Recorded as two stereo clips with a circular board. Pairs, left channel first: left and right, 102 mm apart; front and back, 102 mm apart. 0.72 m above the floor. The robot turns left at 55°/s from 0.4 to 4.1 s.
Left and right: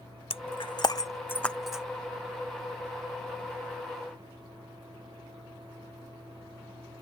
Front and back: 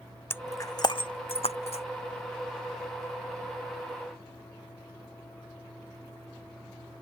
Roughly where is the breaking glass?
Left.